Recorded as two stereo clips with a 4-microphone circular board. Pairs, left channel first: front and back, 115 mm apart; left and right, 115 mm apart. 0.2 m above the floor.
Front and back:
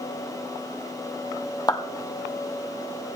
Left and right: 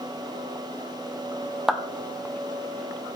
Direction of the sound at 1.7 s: 10° right.